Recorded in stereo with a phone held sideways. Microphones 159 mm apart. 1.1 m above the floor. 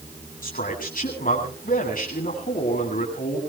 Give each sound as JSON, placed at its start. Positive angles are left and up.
{"t": 0.4, "sound": "a man speaking", "side_deg": 60, "distance_m": 9.0}